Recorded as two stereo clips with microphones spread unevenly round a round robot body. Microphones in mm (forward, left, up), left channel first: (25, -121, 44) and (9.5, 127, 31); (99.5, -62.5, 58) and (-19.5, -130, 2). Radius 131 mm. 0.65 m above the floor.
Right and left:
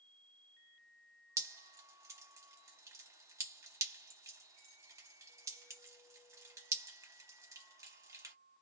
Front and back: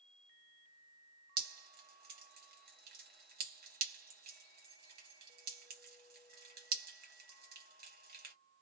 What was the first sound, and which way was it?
Dripping, 170° left.